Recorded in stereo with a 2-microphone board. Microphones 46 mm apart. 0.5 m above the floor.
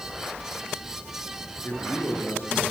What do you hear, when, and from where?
1.6 s a man speaking: 50° left (ahead or behind), 8 m